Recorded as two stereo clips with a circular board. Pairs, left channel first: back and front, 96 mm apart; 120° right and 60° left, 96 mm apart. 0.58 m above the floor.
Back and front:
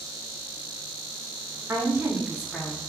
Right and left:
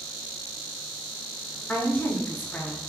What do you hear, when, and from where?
1.7 s a woman speaking: 50° right, 1.5 m; by 2.8 s straight behind, 0.8 m